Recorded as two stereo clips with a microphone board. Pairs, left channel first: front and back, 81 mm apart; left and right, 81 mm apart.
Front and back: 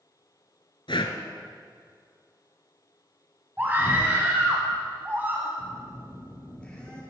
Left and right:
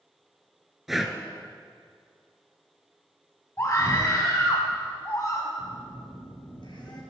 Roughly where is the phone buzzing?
Left.